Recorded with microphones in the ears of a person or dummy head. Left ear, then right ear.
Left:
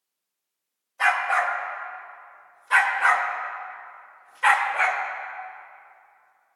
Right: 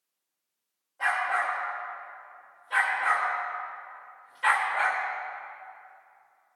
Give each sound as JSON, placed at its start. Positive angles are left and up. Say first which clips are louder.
{"t": 1.0, "sound": "a dog barking", "louder": "left 5 dB", "side_deg": 80, "distance_m": 3.0}